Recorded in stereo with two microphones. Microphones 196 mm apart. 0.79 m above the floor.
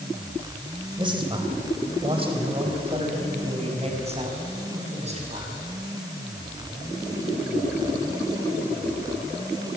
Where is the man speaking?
25° right (ahead or behind), 3 m; by 5.7 s 35° right (ahead or behind), 6 m.